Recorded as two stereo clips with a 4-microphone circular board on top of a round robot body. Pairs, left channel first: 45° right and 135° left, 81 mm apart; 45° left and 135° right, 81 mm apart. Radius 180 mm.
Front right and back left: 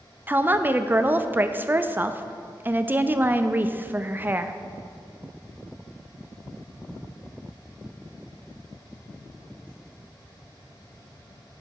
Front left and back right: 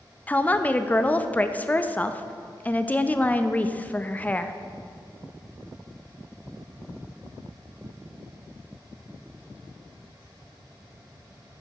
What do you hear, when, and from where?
0.3 s a woman speaking: 95° left, 0.7 m